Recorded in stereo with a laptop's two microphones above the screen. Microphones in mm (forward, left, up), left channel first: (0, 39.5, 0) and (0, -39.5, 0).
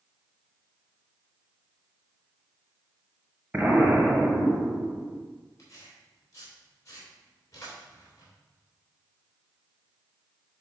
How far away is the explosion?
About 1.0 m.